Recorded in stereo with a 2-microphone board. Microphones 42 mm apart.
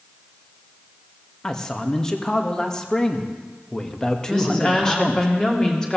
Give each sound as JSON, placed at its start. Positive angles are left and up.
{"t": 1.4, "sound": "a man speaking", "side_deg": 15, "distance_m": 1.1}
{"t": 4.3, "sound": "a woman speaking", "side_deg": 15, "distance_m": 2.0}